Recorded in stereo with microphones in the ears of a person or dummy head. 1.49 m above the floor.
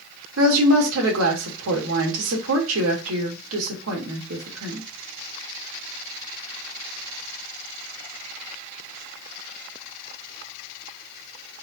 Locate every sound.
0.4 s a woman speaking: 80° right, 2.0 m